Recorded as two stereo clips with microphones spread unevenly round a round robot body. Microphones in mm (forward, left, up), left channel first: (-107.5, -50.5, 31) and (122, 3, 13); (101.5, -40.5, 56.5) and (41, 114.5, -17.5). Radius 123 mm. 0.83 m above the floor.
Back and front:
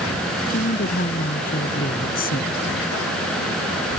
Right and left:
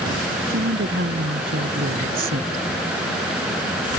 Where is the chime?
I don't hear a chime.